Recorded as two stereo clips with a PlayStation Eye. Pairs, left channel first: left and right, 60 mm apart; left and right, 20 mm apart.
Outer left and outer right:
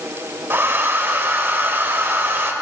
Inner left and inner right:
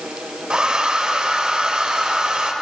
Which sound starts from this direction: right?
A hair dryer, at 0.5 s.